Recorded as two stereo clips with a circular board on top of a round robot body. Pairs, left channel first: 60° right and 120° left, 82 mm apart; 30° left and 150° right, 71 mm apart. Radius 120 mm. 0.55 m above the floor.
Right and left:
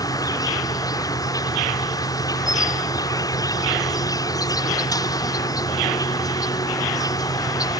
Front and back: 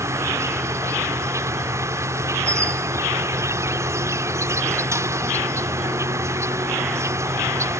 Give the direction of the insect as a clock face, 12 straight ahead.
3 o'clock.